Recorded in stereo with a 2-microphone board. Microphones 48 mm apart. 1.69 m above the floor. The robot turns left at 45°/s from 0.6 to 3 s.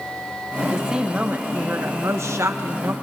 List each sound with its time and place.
0.6 s a woman speaking: 5° right, 1.4 m; by 2.9 s 105° right, 1.4 m